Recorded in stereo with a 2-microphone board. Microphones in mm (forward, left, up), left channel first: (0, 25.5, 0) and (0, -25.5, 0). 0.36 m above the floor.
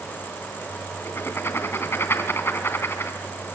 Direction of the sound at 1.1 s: 45° left (ahead or behind).